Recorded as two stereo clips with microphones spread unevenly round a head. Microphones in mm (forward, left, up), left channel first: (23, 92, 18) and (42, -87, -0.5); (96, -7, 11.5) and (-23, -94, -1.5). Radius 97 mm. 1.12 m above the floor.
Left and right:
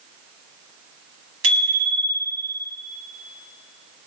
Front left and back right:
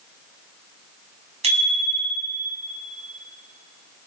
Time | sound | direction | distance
1.4 | a bicycle bell | 105° right | 6.5 m